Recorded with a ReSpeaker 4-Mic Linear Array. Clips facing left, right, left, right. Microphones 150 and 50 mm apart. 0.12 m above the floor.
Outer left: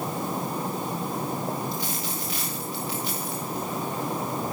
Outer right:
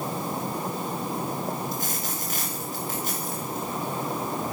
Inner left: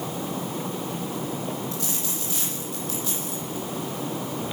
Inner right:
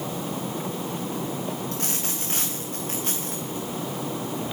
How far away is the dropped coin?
About 8.5 m.